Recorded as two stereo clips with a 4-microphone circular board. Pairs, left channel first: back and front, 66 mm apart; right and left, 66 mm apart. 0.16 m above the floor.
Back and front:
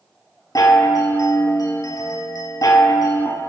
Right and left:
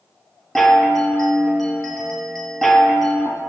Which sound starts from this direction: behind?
A chime, at 0.6 s.